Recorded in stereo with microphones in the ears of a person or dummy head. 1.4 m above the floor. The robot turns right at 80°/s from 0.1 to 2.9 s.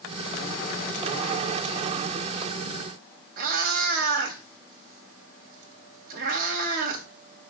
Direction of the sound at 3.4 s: 55° right (ahead or behind).